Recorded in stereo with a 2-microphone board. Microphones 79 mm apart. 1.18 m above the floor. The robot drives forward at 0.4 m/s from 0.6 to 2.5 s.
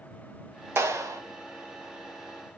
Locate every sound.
0.8 s a clap: 35° right (ahead or behind), 0.7 m; by 1.2 s 45° right (ahead or behind), 0.5 m